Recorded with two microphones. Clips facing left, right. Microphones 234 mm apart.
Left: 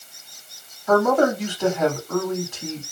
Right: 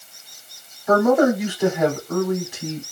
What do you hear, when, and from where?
0.9 s a man speaking: 10° right (ahead or behind), 1.7 m